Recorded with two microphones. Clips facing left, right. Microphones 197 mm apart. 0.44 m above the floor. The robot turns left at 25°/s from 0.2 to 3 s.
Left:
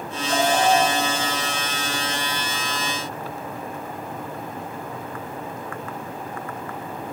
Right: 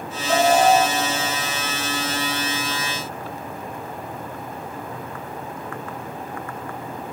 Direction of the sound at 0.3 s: 65° right (ahead or behind).